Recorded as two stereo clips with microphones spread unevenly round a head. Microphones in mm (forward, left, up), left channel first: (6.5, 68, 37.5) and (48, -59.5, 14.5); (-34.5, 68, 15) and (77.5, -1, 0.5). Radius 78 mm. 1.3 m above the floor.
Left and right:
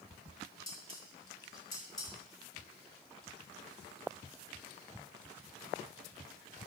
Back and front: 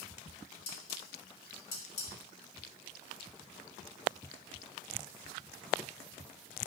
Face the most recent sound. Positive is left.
turn(degrees=175)